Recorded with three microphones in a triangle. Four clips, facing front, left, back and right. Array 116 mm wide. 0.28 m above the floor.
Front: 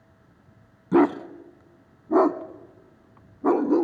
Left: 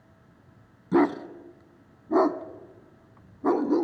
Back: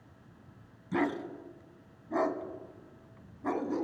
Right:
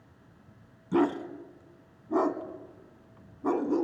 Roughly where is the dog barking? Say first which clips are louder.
Left 4 dB, front 12 dB; ahead.